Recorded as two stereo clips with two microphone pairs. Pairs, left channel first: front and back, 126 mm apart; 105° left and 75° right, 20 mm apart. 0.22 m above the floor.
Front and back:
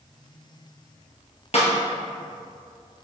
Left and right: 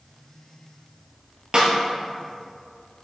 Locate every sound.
1.5 s a snare drum: 30° right, 3 m